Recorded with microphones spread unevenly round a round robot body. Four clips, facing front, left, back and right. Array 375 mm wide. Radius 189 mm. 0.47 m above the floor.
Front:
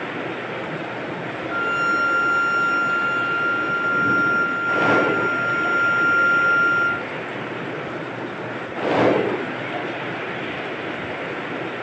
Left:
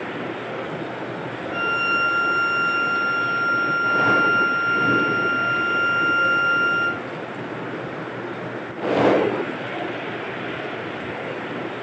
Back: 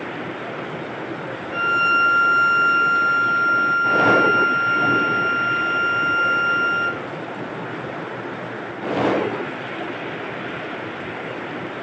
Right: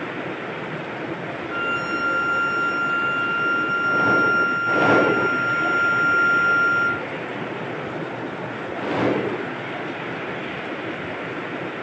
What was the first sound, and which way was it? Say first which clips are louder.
A violin: left 3 dB, back 3 dB; 50° right.